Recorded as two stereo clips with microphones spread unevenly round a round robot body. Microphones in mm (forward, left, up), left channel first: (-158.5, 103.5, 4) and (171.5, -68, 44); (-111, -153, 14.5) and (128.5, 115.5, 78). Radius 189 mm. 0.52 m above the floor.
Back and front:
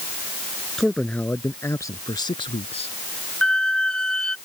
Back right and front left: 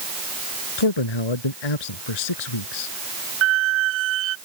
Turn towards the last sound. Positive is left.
turn(degrees=65)